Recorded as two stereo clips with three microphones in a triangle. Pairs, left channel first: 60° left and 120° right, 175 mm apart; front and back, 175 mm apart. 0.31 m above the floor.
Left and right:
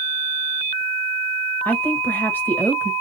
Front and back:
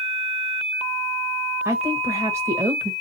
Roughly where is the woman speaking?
Behind left.